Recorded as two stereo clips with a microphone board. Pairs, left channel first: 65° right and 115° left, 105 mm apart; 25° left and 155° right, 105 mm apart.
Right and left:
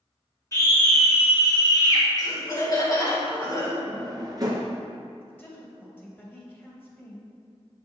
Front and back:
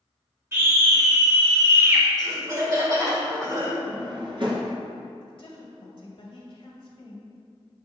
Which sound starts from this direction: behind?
A drawer, at 3.9 s.